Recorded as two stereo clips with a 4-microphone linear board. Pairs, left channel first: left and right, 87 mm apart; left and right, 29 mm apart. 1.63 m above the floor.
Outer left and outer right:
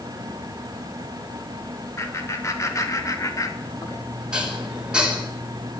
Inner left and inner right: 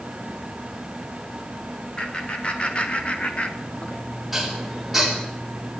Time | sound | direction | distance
2.0 | laughter | 35° left (ahead or behind) | 3 m
4.3 | dishes clattering | 10° right (ahead or behind) | 3 m